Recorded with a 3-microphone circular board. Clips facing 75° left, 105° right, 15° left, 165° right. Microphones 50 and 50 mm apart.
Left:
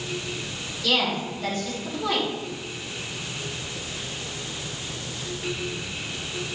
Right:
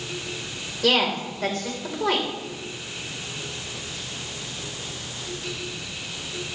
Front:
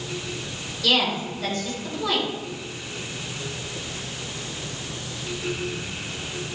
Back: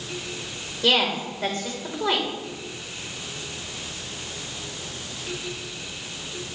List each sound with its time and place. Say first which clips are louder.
0.8 s a woman speaking: right 3 dB, back 1 dB; 110° right, 3 m